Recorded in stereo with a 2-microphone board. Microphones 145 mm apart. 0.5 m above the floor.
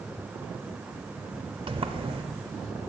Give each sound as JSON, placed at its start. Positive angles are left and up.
{"t": 1.7, "sound": "a sliding door", "side_deg": -40, "distance_m": 0.7}